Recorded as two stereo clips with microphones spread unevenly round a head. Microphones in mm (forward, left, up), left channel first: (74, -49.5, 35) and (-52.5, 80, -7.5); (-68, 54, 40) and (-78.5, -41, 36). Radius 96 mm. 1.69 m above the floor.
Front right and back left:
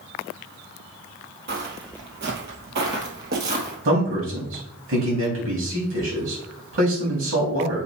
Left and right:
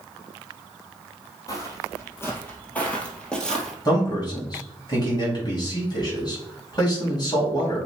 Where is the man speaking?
130° left, 4 m.